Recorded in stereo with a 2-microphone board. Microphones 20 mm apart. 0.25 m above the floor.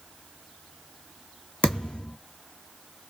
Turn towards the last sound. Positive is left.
turn(degrees=80)